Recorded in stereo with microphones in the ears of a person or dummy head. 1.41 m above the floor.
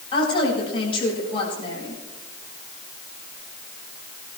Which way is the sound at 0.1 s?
35° left (ahead or behind).